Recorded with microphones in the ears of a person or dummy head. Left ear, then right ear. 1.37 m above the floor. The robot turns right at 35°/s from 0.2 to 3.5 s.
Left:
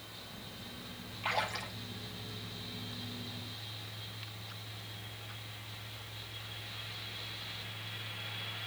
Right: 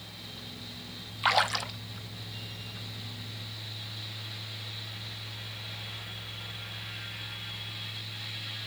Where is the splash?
60° right (ahead or behind), 0.5 m; by 1.7 s 45° right (ahead or behind), 0.5 m.